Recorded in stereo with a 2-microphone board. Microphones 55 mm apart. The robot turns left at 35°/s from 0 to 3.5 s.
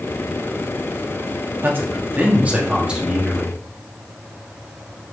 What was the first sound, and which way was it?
A man speaking, 105° right.